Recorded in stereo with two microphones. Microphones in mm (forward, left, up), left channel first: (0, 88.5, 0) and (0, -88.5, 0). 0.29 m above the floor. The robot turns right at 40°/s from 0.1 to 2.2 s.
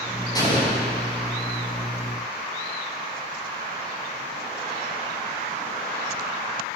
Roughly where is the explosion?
Left.